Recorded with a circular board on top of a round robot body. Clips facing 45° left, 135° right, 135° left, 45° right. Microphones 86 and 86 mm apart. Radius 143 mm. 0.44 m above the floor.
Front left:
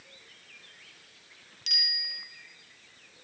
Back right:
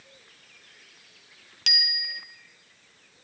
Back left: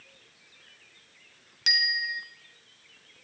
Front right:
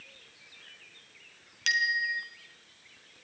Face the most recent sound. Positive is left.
turn(degrees=-145)